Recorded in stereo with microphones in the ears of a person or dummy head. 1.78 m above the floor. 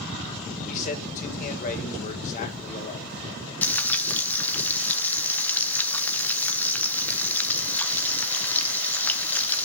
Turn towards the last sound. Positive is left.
turn(degrees=10)  # may be behind; listen again after turning